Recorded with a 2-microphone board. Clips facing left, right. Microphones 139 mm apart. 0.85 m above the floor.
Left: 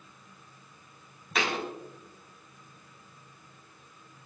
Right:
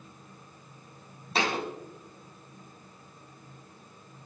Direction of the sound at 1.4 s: 30° right (ahead or behind).